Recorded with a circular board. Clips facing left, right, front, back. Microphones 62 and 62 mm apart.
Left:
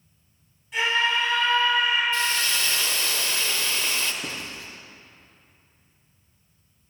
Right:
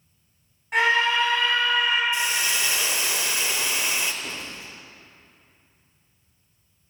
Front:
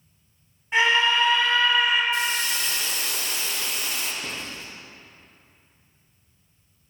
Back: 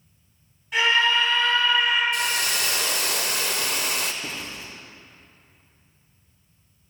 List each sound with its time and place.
0.7 s a scream: 65° right, 3 m; by 2.0 s 90° right, 3 m
2.1 s a hiss: 165° right, 0.5 m
4.2 s writing: 90° left, 1.7 m